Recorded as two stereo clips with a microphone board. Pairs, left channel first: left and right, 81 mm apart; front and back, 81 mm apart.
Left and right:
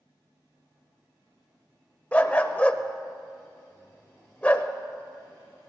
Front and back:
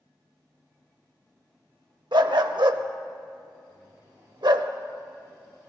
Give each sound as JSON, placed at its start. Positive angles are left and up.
{"t": 2.1, "sound": "a dog barking", "azimuth_deg": 160, "distance_m": 0.6}